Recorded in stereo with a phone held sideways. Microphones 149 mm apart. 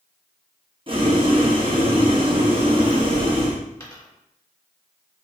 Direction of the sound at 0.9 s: 35° right (ahead or behind).